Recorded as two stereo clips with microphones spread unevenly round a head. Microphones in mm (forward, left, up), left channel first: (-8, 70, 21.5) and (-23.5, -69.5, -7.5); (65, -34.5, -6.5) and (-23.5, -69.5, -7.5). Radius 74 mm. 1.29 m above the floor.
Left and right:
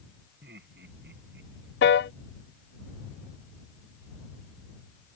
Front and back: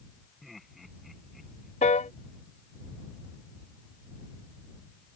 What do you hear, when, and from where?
0.4 s laughter: 70° right
1.8 s a piano: 65° left